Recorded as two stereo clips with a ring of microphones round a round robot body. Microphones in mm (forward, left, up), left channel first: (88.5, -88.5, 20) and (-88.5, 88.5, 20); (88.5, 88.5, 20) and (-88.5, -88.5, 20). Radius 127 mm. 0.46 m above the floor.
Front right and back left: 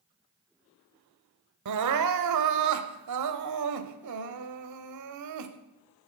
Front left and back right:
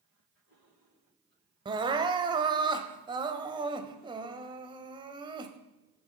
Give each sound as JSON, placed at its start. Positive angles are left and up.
{"t": 1.6, "sound": "crying", "azimuth_deg": 150, "distance_m": 0.9}